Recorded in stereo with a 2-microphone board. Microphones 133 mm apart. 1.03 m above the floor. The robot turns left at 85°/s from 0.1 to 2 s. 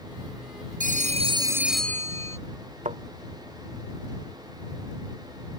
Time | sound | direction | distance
0.8 | a phone ringing | 100° right | ?
2.9 | a thud | 65° right (ahead or behind) | ?